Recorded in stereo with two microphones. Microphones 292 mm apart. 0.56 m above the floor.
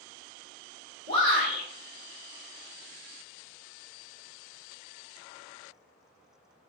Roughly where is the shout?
Right.